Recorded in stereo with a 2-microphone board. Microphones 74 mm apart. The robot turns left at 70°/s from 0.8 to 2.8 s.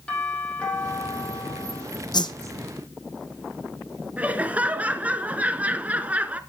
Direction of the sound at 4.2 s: 20° right (ahead or behind).